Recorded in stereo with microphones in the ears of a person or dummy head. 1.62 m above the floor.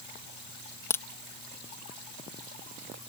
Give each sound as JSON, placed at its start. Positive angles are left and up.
{"t": 0.9, "sound": "a crack", "side_deg": 15}